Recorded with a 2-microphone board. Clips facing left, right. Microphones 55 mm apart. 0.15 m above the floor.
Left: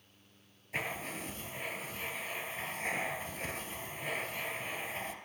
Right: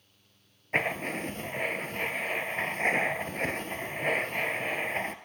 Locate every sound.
0.7 s writing: 55° right (ahead or behind), 0.7 m